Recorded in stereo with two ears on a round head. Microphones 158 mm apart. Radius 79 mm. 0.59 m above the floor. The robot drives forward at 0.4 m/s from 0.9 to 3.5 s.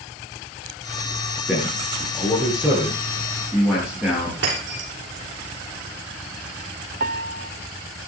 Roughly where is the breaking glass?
Right.